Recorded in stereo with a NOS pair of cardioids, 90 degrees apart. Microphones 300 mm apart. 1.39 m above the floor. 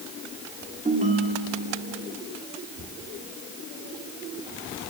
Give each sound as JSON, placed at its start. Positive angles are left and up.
{"t": 0.8, "sound": "a ringtone", "azimuth_deg": -25, "distance_m": 2.0}